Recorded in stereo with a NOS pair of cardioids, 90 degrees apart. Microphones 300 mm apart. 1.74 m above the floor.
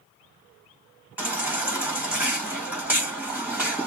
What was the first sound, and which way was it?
A baby crying, 5° right.